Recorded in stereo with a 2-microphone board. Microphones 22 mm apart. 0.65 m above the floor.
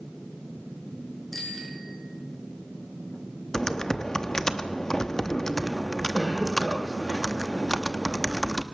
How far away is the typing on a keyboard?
About 0.9 m.